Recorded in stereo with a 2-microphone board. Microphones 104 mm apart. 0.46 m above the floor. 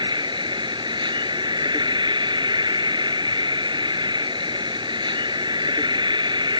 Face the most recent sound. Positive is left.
turn(degrees=-45)  # may be behind; listen again after turning